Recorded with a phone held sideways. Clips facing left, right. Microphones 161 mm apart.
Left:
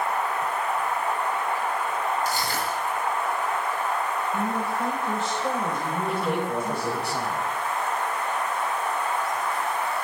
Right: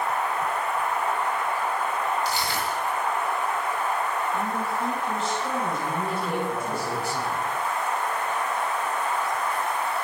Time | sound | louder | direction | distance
2.2 | crushing | even | 50° left (ahead or behind) | 9 m
4.3 | a man speaking | left 1 dB | 65° left (ahead or behind) | 5 m
6.1 | a man speaking | left 1 dB | 75° left (ahead or behind) | 4.5 m